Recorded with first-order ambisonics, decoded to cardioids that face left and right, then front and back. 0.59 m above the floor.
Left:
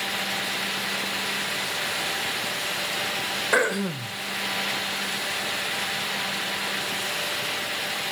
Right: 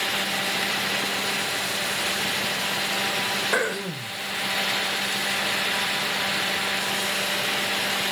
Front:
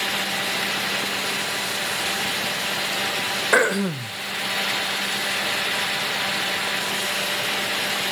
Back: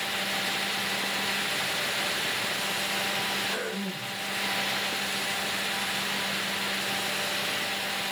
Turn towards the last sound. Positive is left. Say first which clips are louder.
# left 2 dB, front 13 dB
turn(degrees=10)